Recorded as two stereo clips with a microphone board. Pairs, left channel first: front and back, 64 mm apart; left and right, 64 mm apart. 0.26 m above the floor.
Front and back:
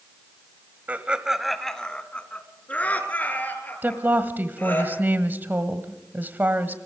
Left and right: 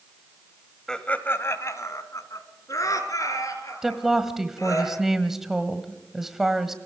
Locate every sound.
0.9 s laughter: 160° left, 1.1 m; by 4.8 s 60° left, 6 m
3.8 s a woman speaking: 170° right, 1.3 m